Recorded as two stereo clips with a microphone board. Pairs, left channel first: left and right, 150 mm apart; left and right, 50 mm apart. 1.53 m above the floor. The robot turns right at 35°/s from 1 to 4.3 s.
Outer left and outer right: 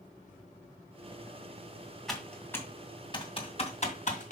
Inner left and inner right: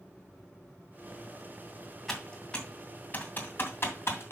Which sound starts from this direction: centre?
Typing on a keyboard, at 2.1 s.